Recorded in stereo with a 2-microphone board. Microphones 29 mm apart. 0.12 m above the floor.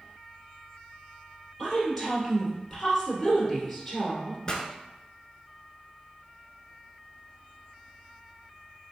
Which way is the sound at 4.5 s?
25° left (ahead or behind).